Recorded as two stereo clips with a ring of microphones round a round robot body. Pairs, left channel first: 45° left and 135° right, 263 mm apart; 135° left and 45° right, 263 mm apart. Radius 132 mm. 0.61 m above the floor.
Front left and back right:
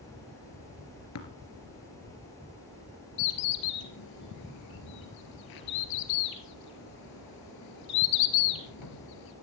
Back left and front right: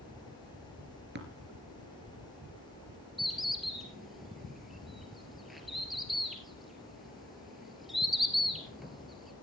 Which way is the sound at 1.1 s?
10° left.